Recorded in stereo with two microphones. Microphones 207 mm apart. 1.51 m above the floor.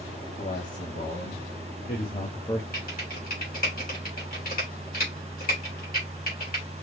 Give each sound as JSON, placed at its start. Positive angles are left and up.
{"t": 0.4, "sound": "a man speaking", "side_deg": 65, "distance_m": 3.5}
{"t": 2.7, "sound": "typing on a keyboard", "side_deg": 45, "distance_m": 3.0}